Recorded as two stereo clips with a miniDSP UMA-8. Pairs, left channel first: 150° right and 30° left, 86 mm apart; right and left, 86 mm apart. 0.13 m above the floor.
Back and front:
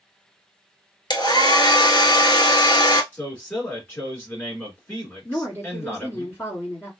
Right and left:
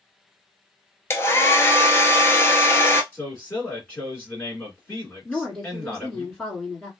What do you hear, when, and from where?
1.1 s a hair dryer: 145° right, 0.7 m
3.1 s a man speaking: 120° right, 1.7 m
5.2 s a woman speaking: 165° right, 1.7 m